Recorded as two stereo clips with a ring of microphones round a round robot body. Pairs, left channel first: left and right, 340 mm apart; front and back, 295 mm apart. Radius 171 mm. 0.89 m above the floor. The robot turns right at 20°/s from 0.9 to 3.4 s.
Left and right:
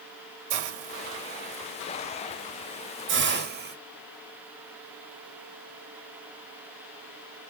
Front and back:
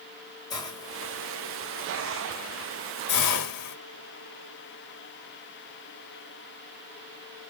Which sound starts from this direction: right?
A hiss, at 0.5 s.